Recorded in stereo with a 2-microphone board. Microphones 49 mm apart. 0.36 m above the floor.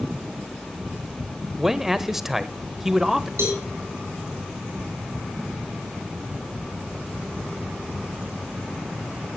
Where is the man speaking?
10° right (ahead or behind), 1.1 m.